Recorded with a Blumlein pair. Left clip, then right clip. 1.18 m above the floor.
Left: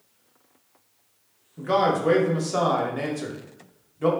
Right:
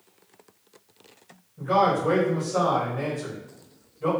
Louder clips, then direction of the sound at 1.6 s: Even; 30° left.